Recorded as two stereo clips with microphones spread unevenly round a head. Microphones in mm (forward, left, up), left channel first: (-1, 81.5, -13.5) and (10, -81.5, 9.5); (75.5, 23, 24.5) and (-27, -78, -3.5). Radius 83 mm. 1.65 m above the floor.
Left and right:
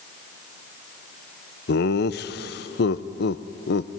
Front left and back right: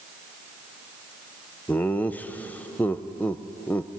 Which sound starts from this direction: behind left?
Laughter, at 1.7 s.